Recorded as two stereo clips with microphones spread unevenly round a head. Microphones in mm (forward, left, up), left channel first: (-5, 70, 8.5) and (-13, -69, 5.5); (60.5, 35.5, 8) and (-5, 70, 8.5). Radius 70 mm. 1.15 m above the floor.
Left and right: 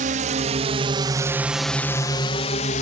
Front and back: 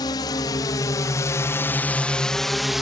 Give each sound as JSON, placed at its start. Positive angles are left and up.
{"t": 0.0, "sound": "a drone", "azimuth_deg": -65}